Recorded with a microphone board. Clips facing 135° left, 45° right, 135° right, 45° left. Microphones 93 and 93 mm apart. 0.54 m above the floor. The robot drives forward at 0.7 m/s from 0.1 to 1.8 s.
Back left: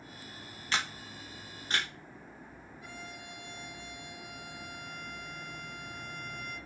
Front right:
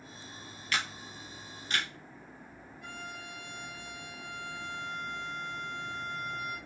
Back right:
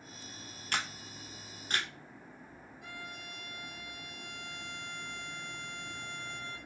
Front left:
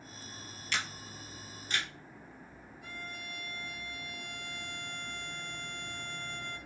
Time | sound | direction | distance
0.7 | a camera shutter | 170° right | 0.7 m
2.8 | a violin | 145° right | 2.5 m